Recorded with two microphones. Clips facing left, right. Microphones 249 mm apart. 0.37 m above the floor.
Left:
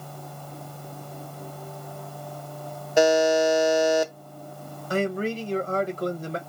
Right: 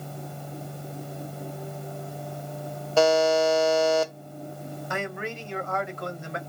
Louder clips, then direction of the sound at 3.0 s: Left 1 dB; 15° left (ahead or behind).